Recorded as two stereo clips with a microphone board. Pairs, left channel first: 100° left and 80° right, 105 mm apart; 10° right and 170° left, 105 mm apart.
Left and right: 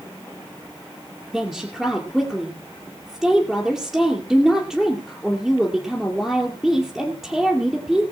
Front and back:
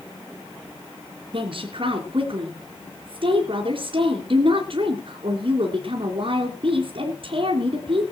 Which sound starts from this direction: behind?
A woman speaking, at 1.3 s.